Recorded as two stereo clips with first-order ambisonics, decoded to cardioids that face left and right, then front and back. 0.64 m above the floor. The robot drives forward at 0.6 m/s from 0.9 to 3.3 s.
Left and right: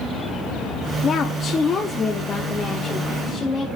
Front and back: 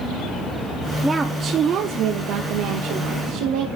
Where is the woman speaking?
95° left, 0.6 m; by 3.7 s 170° left, 1.5 m.